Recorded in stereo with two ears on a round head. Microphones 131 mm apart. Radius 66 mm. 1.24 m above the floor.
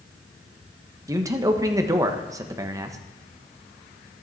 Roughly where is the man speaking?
Right.